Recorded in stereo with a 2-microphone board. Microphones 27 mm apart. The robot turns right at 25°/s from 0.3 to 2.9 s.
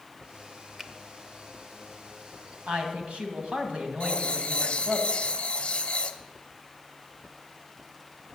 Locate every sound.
0.8 s a finger snap: 15° right (ahead or behind), 0.7 m
2.7 s a woman speaking: 50° right (ahead or behind), 2 m; by 5.0 s 45° right (ahead or behind), 2 m
4.0 s writing: 45° left (ahead or behind), 0.9 m